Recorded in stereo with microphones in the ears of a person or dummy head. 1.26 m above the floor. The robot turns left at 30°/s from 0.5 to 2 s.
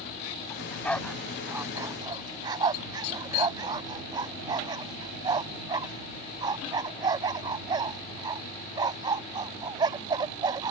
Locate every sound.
0.5 s a dog barking: 20° left (ahead or behind); by 10.7 s 25° right (ahead or behind)